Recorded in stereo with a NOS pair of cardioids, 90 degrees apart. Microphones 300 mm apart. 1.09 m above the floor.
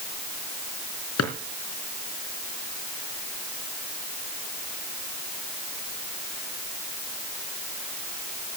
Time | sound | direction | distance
1.2 | a drawer | 60° left | 4 m